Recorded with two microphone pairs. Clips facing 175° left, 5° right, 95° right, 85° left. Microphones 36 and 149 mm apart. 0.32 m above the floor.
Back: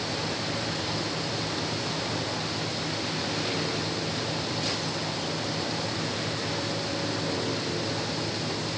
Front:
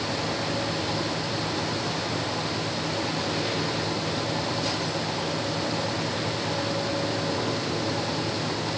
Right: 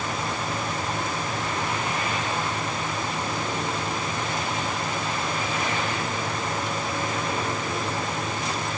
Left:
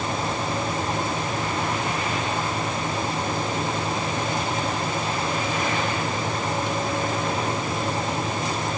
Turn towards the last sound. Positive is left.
No sound to turn to.